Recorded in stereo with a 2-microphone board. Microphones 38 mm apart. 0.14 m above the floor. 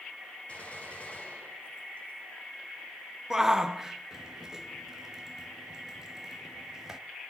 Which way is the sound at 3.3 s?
10° right (ahead or behind).